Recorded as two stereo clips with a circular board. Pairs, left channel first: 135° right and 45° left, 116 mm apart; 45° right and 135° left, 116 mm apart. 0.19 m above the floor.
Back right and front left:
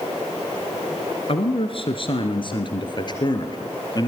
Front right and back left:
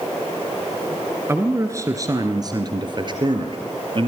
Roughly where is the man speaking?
Behind.